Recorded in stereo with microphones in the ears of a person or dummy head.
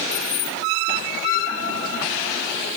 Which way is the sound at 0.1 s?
65° left (ahead or behind).